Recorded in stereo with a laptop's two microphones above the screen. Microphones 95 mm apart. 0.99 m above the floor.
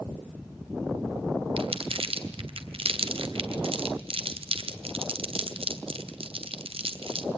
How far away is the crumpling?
About 2.5 m.